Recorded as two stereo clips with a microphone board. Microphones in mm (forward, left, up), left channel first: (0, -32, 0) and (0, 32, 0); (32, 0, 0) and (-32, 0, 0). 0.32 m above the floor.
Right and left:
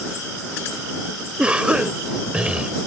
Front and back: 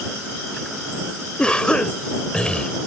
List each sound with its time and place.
1.4 s a cough: 45° left